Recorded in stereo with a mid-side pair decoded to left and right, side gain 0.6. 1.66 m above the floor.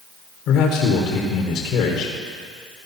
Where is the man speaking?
60° left, 1.1 m.